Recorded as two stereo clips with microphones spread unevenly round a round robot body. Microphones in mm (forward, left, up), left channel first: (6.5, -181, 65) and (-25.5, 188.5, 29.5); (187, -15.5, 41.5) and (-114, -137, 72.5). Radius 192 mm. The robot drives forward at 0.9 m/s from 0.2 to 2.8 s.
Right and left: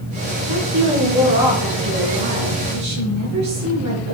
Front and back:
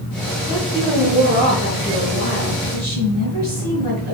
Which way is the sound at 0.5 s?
115° left.